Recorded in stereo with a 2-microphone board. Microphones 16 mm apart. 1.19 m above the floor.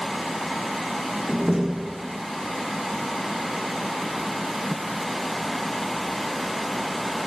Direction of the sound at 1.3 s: 30° right (ahead or behind).